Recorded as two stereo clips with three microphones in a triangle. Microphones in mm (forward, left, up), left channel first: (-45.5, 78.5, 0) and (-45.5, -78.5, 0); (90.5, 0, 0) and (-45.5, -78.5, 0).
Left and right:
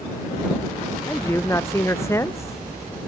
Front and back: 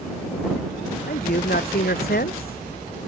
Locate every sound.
1.1 s a man speaking: 15° left